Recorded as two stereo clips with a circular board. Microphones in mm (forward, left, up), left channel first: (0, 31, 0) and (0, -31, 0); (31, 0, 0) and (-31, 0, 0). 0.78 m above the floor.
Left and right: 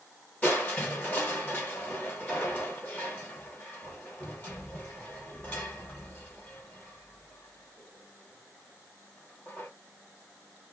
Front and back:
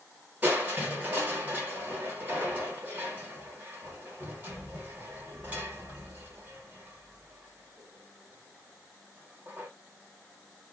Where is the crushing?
135° left, 1.0 m.